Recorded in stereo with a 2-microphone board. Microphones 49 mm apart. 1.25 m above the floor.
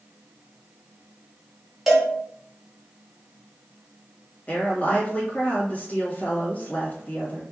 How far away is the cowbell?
About 0.7 m.